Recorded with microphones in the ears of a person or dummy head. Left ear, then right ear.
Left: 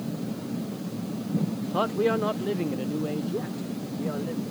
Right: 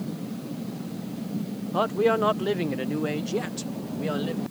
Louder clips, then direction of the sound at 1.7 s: Right 2 dB; 15° right (ahead or behind).